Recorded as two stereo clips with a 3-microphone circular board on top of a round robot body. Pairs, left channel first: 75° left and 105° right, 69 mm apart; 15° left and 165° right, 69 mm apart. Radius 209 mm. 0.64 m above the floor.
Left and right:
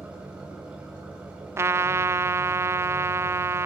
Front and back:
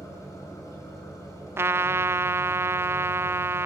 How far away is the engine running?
About 5.5 m.